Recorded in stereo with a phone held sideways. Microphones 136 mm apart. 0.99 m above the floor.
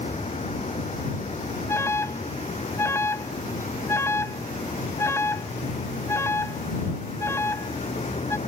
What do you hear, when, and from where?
0.0 s a vehicle: 50° left (ahead or behind)
1.7 s an alarm: 20° left (ahead or behind)